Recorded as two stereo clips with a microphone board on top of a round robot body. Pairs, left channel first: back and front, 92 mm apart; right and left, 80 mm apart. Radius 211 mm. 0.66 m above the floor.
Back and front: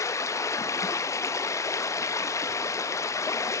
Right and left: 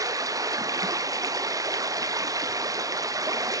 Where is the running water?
130° left, 1.2 m.